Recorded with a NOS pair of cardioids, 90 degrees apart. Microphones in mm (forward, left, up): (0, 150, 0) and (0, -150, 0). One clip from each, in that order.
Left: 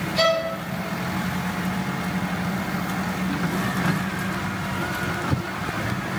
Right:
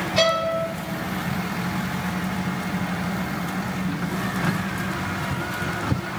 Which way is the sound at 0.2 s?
40° right.